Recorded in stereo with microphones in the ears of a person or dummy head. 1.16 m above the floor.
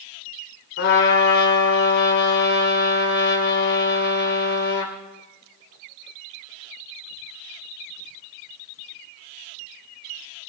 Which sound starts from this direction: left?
A trumpet, at 0.8 s.